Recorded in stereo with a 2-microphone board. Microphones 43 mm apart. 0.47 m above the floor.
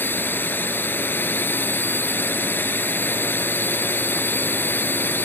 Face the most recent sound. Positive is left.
turn(degrees=55)  # may be behind; listen again after turning